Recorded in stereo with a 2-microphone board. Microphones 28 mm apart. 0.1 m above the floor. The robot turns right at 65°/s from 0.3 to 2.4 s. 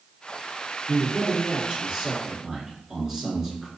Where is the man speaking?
5° right (ahead or behind), 1.4 m; by 3.7 s 15° right (ahead or behind), 1.4 m.